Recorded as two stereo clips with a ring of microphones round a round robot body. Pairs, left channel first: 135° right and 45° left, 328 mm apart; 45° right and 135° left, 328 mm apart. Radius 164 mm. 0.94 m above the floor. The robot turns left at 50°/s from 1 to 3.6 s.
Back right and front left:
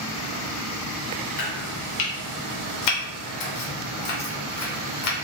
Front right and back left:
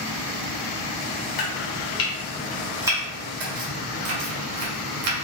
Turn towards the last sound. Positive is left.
turn(degrees=180)